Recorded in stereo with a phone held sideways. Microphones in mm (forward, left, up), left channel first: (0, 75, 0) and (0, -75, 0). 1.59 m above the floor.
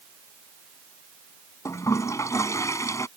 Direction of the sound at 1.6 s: 20° left (ahead or behind).